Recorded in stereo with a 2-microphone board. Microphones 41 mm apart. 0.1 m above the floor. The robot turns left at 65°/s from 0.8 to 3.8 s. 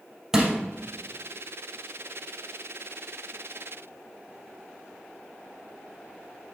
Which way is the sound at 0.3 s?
10° right (ahead or behind).